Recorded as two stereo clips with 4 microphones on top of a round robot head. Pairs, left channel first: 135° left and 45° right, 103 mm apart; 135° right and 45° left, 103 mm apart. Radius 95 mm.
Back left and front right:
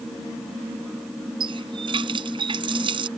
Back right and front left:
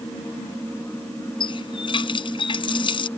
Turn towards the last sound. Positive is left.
turn(degrees=-90)